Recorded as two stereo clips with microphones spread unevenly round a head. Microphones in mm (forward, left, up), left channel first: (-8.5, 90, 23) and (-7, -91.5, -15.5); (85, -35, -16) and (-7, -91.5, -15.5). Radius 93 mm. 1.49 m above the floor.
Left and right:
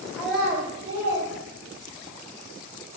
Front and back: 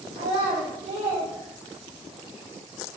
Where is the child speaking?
165° left, 0.7 m; by 2.2 s 100° right, 1.1 m.